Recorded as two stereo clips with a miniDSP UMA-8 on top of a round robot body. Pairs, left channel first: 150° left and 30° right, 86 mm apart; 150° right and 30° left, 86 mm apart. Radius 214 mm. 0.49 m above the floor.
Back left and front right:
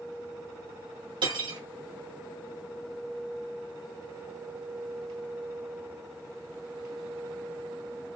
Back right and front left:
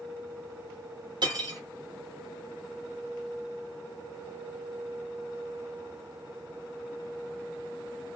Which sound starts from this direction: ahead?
Cutlery clinking, at 1.2 s.